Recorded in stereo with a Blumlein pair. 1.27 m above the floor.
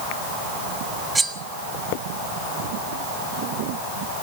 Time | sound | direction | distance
1.1 | cutlery clinking | 10° right | 1.3 m